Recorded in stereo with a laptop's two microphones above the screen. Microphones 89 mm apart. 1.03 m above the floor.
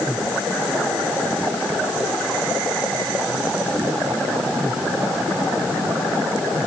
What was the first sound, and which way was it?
Only background noise.